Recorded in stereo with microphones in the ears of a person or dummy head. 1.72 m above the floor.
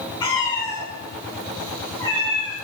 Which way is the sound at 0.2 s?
15° left (ahead or behind).